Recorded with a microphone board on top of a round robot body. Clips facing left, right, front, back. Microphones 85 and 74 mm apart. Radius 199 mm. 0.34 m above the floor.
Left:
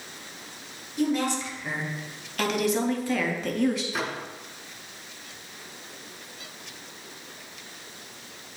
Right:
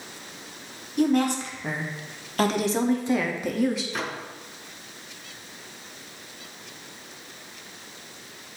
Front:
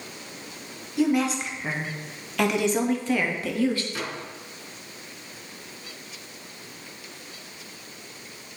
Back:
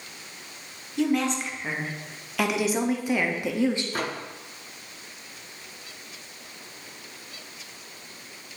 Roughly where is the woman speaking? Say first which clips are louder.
Right 4 dB, front 2 dB; right.